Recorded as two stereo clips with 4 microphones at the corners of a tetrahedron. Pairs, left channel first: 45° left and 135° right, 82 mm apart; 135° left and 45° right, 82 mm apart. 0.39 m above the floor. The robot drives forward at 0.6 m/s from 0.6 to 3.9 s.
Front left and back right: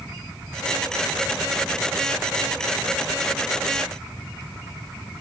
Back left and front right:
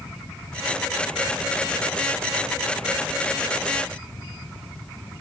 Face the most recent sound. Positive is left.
No sound to turn to.